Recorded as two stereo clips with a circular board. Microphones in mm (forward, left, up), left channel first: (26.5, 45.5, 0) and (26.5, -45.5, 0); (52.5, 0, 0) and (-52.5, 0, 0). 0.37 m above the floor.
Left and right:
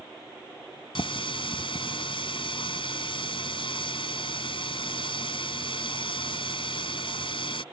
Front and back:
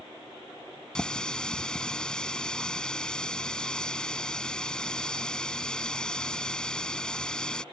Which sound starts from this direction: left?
A running tap, at 0.9 s.